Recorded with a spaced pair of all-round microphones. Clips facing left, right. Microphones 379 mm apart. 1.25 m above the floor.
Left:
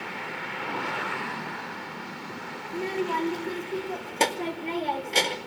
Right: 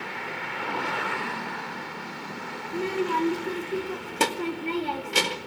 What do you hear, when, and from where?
2.7 s a child speaking: 20° right (ahead or behind), 2 m